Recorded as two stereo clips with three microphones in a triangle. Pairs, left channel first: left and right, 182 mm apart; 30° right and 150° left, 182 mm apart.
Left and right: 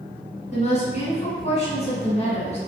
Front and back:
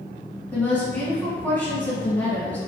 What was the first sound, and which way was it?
A woman speaking, 50° left.